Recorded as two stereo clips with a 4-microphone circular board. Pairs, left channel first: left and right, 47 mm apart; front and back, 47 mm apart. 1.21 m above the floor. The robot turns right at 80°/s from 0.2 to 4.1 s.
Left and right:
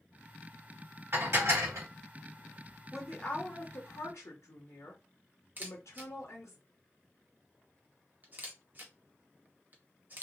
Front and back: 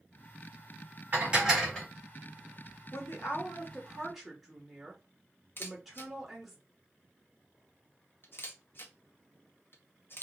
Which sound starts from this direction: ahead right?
A camera shutter, at 5.6 s.